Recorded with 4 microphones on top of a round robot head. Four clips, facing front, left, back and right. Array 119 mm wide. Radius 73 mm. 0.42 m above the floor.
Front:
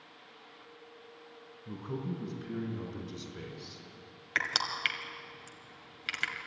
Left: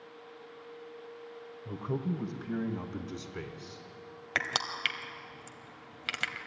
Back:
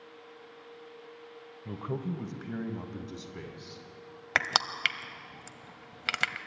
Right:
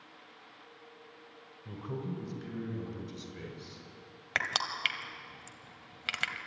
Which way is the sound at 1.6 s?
160° left.